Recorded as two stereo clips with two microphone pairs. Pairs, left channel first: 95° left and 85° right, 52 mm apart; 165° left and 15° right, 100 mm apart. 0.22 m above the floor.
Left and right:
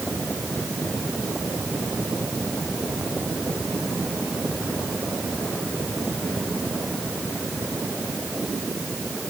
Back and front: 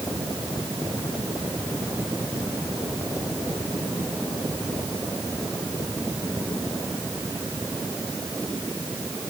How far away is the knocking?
No knocking in this recording.